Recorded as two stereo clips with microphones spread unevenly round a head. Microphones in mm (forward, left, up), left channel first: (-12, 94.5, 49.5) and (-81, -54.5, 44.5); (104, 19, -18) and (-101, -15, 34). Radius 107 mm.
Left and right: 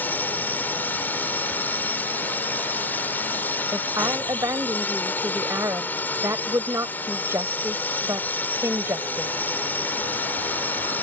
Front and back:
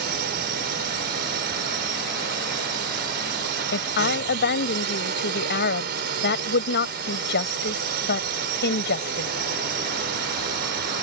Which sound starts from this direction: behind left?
A drone, at 0.0 s.